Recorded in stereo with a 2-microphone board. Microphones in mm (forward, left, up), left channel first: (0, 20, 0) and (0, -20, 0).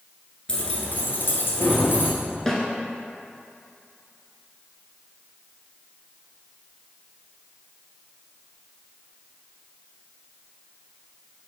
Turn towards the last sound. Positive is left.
turn(degrees=10)  # may be behind; listen again after turning